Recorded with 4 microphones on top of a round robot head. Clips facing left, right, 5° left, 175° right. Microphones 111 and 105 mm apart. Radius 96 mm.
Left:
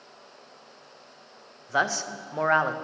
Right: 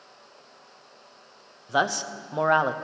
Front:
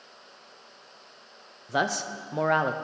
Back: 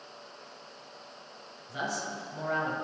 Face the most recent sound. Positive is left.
turn(degrees=-15)